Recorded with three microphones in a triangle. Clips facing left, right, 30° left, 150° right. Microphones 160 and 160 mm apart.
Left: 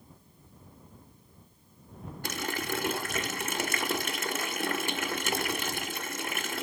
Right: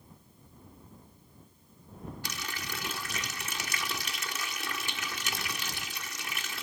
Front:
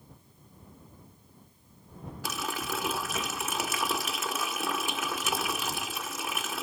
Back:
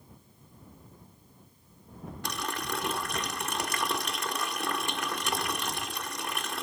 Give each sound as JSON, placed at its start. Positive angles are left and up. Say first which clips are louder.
{"t": 2.2, "sound": "a running tap", "louder": "left 13 dB, front 1 dB", "azimuth_deg": 115}